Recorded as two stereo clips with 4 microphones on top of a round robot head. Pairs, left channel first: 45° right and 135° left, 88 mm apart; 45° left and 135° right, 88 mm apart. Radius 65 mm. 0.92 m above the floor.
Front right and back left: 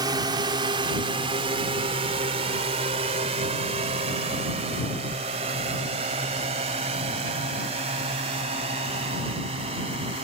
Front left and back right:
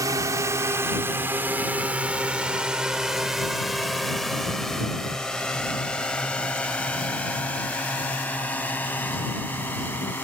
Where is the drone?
175° left; by 10.2 s 115° left.